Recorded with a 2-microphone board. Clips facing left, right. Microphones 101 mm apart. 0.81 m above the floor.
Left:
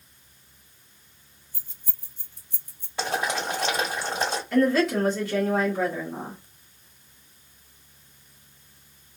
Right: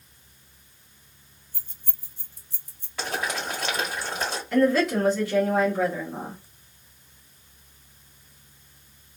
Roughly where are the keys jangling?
Right.